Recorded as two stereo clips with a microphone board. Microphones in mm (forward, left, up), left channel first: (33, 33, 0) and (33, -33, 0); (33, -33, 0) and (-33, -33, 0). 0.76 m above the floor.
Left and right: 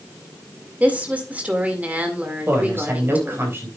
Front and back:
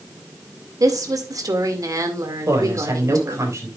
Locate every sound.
0.8 s a woman speaking: 155° right, 2.0 m
2.5 s a woman speaking: 140° right, 4 m